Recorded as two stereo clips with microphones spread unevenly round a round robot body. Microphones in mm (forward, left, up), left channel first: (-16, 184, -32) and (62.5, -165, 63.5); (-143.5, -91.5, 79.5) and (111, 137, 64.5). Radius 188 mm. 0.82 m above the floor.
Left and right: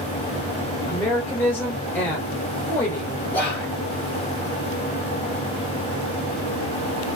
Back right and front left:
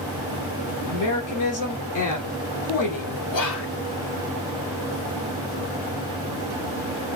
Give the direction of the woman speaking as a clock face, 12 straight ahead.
6 o'clock.